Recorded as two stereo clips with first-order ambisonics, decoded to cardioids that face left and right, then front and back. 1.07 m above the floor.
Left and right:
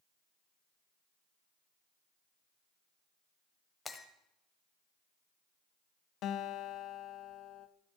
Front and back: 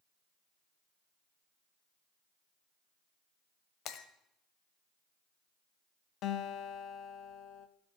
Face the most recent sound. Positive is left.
turn(degrees=45)